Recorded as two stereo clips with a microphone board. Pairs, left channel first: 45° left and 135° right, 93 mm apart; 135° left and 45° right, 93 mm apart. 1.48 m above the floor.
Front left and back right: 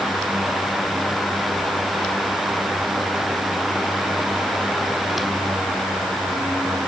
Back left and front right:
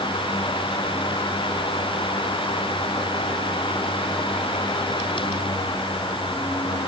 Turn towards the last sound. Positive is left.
No sound to turn to.